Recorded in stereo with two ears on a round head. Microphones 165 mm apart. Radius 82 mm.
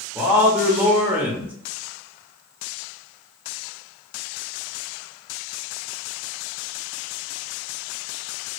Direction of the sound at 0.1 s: 10° right (ahead or behind).